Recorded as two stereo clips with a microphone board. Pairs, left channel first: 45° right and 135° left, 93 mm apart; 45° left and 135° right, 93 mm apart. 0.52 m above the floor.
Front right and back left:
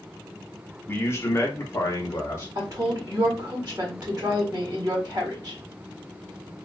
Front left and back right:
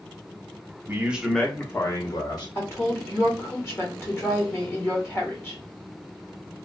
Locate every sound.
0.9 s a man speaking: 95° right, 0.7 m; by 2.5 s 10° left, 1.2 m
2.5 s a woman speaking: 105° left, 1.3 m